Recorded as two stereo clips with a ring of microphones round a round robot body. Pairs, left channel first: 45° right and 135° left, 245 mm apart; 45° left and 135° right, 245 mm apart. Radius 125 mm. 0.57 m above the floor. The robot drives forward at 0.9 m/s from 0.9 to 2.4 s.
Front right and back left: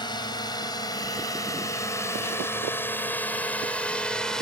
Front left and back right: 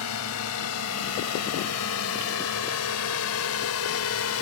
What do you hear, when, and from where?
0.0 s a drone: 30° left; by 4.4 s 45° left